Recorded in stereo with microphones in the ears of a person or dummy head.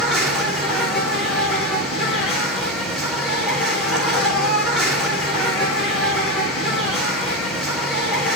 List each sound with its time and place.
0.0 s an insect: centre (ahead or behind), 3 m